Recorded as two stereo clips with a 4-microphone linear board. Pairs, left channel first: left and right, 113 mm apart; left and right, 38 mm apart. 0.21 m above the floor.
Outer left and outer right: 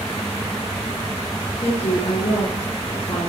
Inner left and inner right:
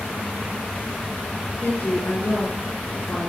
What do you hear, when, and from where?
1.6 s a woman speaking: 65° left (ahead or behind), 3.5 m